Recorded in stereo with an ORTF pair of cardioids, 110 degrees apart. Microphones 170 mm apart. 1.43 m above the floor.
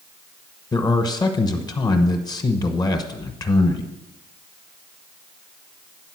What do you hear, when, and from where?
0.7 s a man speaking: 25° left, 1.1 m